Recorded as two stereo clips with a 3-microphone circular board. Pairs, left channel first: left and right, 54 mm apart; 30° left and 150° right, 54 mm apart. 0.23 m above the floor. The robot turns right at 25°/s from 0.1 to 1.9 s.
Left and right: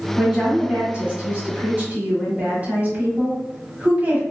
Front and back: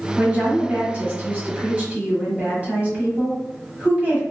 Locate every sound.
0.2 s a woman speaking: 160° right, 1.2 m; by 4.2 s 115° right, 1.2 m